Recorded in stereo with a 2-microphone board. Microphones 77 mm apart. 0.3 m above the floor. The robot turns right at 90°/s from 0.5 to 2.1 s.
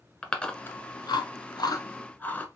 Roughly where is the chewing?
Centre.